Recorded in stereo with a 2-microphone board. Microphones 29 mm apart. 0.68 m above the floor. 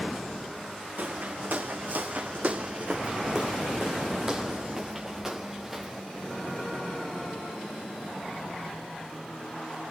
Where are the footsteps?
70° right (ahead or behind), 2.5 m; by 6.0 s 10° right (ahead or behind), 4.5 m.